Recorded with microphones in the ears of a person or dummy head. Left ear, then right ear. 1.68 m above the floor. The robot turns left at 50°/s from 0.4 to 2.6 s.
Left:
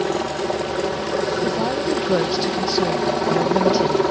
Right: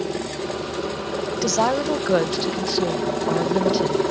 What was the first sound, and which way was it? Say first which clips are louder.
A helicopter: left 5 dB; 135° left.